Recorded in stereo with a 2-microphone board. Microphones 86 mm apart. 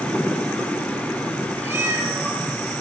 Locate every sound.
1.6 s a cat meowing: 30° right (ahead or behind), 4 m